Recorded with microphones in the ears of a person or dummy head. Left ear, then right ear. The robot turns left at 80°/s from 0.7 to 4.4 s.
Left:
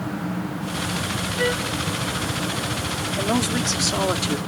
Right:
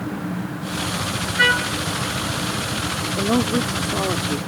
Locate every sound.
1.4 s a trumpet: 70° right (ahead or behind); by 1.8 s 65° right (ahead or behind)
3.2 s a woman speaking: 120° left; by 4.4 s 20° left